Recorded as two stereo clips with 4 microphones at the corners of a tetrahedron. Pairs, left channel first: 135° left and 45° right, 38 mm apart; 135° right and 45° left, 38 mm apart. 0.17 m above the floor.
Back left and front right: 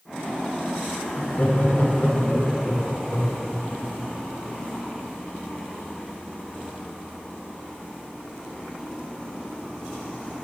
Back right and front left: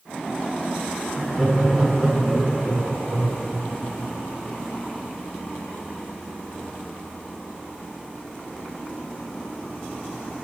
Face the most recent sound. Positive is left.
turn(degrees=100)